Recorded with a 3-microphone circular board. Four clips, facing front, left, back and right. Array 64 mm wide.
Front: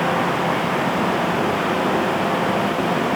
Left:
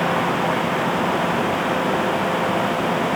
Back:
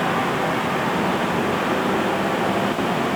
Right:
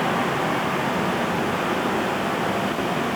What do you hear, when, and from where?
Only background noise.